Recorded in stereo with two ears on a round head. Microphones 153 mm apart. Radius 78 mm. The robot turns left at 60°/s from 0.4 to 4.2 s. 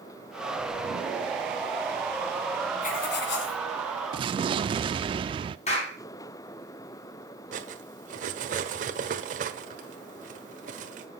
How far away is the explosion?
About 0.7 m.